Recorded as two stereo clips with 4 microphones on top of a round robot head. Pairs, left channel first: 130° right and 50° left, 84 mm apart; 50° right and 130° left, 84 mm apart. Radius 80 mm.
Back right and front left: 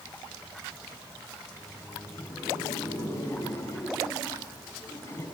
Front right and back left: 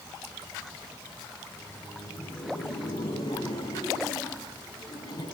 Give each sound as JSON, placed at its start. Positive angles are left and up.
{"t": 1.4, "sound": "laughter", "azimuth_deg": -75, "distance_m": 5.0}